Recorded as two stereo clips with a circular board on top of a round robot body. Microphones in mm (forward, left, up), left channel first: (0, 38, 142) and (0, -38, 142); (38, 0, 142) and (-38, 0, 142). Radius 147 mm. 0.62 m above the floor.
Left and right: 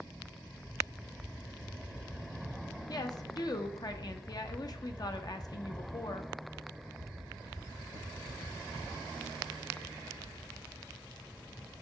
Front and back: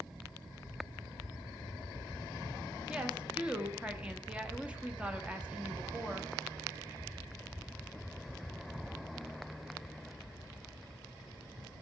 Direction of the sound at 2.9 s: 105° left.